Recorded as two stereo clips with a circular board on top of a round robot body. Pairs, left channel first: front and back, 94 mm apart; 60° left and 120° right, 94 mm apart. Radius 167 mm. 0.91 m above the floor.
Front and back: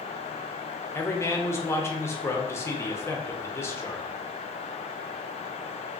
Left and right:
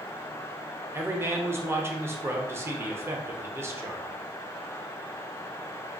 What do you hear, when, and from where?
0.9 s a man speaking: 60° right, 0.8 m